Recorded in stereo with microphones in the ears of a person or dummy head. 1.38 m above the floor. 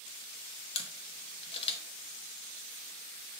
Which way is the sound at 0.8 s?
30° left (ahead or behind).